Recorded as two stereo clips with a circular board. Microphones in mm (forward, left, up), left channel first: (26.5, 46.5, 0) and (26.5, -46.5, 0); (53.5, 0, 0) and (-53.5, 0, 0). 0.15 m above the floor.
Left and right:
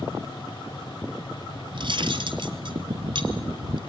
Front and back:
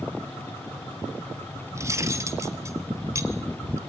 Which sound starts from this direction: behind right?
Cutlery clinking, at 1.7 s.